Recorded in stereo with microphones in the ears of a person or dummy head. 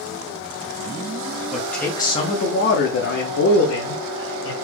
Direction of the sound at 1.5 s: 5° left (ahead or behind).